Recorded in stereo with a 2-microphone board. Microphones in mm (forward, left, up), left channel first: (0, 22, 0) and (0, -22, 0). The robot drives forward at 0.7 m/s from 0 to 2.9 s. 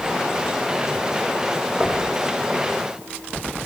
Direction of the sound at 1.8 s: 30° right (ahead or behind).